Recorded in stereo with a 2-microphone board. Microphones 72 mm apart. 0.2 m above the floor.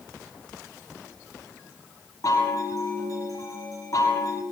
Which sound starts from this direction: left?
A chime, at 2.2 s.